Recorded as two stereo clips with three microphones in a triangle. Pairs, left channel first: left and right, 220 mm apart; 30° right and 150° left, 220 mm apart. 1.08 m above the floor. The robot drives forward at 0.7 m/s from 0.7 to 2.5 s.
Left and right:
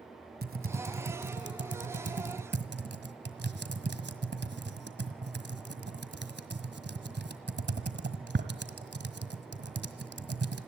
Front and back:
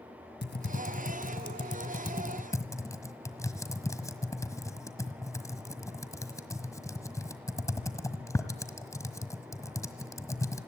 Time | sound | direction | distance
0.4 | typing on a keyboard | 55° right | 1.8 m